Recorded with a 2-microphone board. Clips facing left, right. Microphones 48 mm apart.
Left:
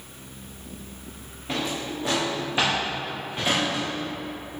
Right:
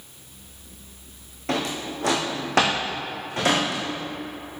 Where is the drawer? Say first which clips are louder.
Right 2 dB; 75° right (ahead or behind), 3.5 m.